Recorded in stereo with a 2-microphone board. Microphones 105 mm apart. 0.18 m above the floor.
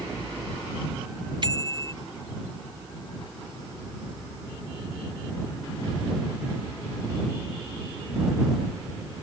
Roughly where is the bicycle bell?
Right.